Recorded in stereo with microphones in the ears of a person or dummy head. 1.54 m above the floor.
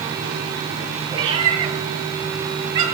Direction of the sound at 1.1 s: 25° right (ahead or behind).